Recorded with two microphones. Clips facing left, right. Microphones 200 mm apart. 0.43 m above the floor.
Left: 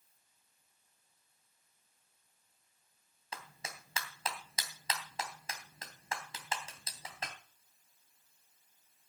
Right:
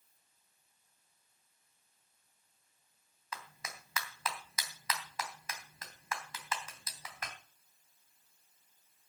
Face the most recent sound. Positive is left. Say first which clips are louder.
# even
turn(degrees=30)  # may be behind; listen again after turning